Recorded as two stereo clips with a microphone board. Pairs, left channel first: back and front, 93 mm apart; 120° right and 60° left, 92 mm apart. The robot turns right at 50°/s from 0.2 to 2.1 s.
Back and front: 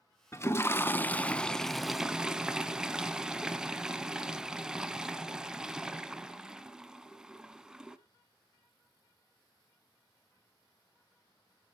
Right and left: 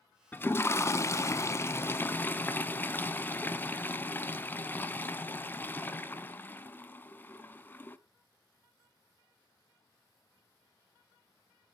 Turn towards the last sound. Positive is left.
turn(degrees=-75)